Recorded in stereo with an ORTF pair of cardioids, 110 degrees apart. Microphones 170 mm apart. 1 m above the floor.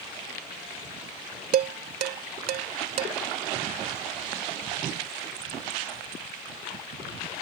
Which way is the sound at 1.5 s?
60° right.